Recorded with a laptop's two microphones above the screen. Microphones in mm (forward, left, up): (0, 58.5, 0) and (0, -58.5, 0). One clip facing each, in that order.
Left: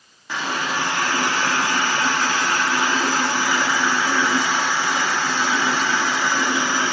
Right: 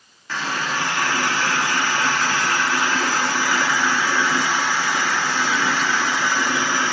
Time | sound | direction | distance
0.3 | a running tap | 15° left (ahead or behind) | 1.2 m